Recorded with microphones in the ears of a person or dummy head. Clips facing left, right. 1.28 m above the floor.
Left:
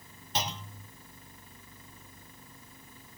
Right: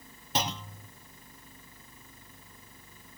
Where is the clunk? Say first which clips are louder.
Right 3 dB; 50° right (ahead or behind), 0.5 m.